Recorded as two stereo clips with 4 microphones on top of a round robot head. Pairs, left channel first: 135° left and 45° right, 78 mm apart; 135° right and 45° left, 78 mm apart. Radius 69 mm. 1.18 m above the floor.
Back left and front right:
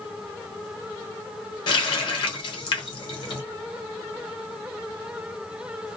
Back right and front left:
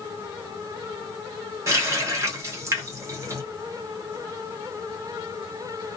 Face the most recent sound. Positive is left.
turn(degrees=105)